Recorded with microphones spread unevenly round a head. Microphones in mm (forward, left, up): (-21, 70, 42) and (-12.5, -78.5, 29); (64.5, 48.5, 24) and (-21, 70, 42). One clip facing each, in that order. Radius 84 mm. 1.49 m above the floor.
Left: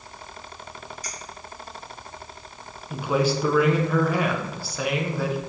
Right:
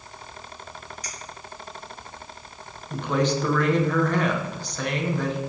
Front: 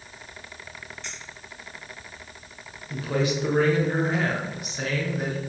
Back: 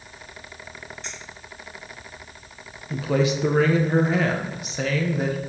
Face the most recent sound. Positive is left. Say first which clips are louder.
# left 1 dB, back 3 dB
turn(degrees=175)